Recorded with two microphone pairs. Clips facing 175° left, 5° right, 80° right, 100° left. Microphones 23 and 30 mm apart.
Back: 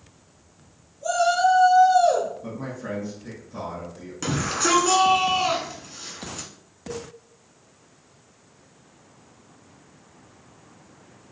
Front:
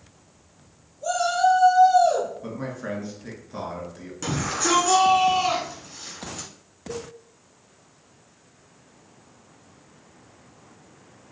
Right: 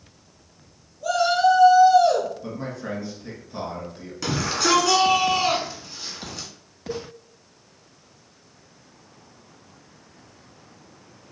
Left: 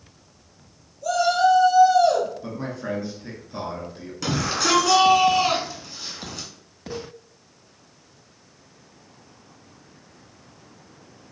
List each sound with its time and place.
1.0 s a shout: 100° right, 1.3 m; by 2.3 s 175° right, 1.7 m
2.4 s a man speaking: 25° left, 1.5 m
4.2 s a shout: 165° right, 1.2 m
6.9 s a cowbell: 155° right, 1.7 m